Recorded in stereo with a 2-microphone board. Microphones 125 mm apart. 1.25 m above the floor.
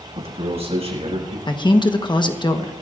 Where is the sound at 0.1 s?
55° right (ahead or behind), 6 m; by 1.4 s 60° right (ahead or behind), 6.5 m.